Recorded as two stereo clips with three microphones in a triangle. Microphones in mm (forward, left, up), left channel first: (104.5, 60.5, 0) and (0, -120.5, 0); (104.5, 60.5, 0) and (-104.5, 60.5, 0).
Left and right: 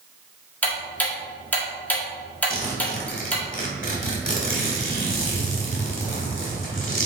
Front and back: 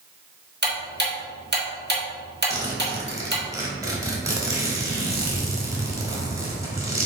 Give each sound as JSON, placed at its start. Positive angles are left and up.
{"t": 0.6, "sound": "ticking", "azimuth_deg": 140, "distance_m": 1.6}
{"t": 2.5, "sound": "a zipper", "azimuth_deg": 105, "distance_m": 1.9}